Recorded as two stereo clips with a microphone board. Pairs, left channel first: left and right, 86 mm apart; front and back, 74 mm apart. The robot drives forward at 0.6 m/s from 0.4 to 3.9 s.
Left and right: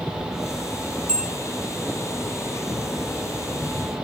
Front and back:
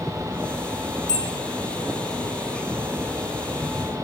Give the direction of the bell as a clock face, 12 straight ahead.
12 o'clock.